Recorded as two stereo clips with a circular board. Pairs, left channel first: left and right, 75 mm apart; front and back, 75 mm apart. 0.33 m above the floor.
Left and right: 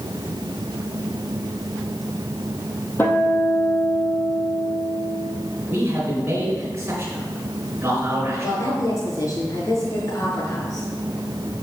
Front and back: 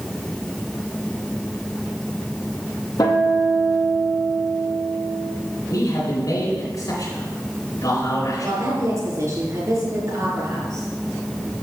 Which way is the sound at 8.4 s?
130° left.